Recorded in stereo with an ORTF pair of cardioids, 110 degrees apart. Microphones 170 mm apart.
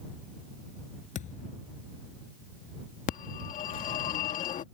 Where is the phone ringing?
55° left.